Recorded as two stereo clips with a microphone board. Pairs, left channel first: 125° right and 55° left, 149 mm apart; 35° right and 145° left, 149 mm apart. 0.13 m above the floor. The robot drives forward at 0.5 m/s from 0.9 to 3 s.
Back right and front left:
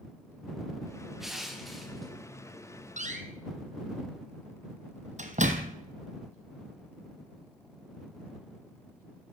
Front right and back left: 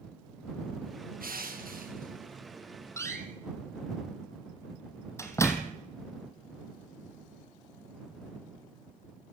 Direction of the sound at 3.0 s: 35° left.